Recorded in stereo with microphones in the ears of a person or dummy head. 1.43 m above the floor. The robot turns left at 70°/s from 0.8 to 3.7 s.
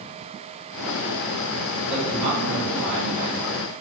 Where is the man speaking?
Straight ahead, 1.6 m; by 3.4 s 105° right, 1.6 m.